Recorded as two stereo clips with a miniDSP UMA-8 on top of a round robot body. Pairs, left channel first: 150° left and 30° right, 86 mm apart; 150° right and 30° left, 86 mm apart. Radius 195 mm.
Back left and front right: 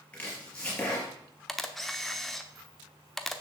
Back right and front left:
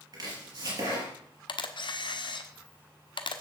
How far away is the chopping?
About 4 m.